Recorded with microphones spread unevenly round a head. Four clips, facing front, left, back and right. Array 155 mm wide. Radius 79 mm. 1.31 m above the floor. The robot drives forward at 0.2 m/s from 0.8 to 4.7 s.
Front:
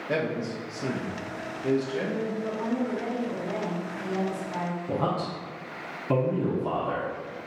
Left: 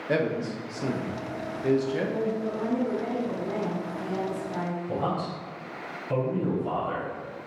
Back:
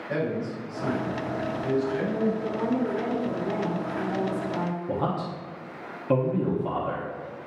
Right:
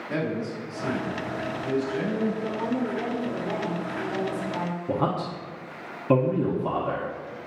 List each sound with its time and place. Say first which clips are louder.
0.1 s a man speaking: left 2 dB, even; 55° left, 1.0 m; by 2.3 s 75° left, 0.9 m
2.4 s a woman speaking: even, back 2 dB; 155° right, 0.7 m; by 4.8 s 165° right, 1.2 m
4.9 s a man speaking: right 4 dB, front 3 dB; 90° right, 0.8 m